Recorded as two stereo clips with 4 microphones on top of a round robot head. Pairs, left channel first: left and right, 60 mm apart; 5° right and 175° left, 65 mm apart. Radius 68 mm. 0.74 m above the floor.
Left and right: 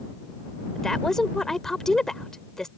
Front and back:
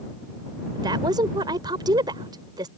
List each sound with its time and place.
0.8 s a woman speaking: 170° left